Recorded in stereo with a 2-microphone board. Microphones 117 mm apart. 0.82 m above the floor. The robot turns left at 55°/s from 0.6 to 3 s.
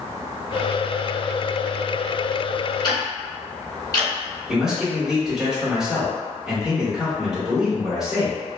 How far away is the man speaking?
About 1.2 m.